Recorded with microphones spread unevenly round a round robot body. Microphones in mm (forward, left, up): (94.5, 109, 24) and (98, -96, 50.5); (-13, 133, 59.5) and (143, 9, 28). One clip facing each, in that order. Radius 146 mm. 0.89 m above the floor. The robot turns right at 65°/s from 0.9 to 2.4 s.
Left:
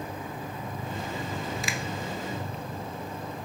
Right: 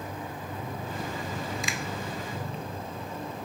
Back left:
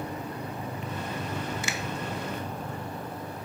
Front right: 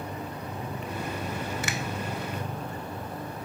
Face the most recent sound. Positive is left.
turn(degrees=50)